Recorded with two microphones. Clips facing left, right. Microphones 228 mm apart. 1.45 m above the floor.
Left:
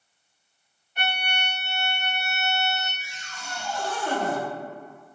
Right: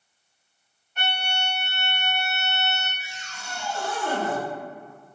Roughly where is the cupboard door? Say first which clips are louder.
Even; right.